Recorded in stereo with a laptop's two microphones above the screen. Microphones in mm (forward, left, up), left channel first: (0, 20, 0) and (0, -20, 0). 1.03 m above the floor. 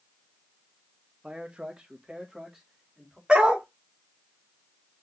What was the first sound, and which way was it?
A man speaking, 30° right (ahead or behind).